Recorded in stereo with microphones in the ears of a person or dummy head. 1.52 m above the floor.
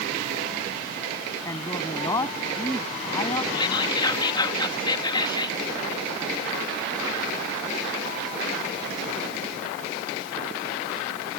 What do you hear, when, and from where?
1.4 s a man speaking: 25° left (ahead or behind); by 3.4 s 30° left (ahead or behind)
3.5 s whispering: 30° left (ahead or behind)